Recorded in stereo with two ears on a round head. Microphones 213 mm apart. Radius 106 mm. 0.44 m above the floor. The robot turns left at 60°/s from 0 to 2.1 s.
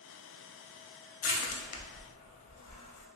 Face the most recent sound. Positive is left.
turn(degrees=65)  # may be behind; listen again after turning